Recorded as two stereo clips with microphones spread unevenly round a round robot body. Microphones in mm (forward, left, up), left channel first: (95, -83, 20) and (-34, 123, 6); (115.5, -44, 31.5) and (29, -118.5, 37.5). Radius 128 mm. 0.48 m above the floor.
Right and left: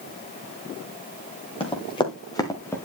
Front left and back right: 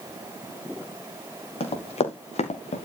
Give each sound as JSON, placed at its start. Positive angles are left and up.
{"t": 1.6, "sound": "running footsteps", "azimuth_deg": 10, "distance_m": 4.0}